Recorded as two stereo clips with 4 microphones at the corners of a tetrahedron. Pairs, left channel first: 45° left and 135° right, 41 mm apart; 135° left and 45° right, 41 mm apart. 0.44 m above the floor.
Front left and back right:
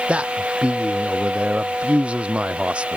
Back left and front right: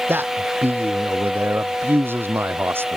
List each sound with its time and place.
0.1 s a man speaking: 75° right